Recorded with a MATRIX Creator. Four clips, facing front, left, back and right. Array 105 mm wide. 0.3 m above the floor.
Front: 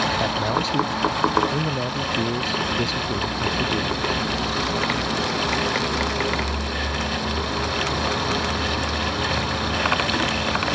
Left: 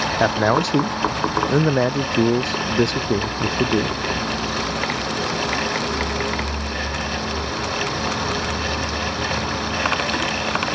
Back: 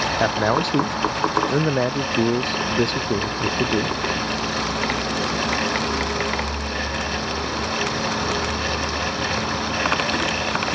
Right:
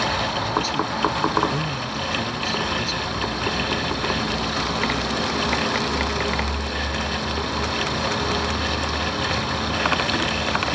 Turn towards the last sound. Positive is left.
turn(degrees=115)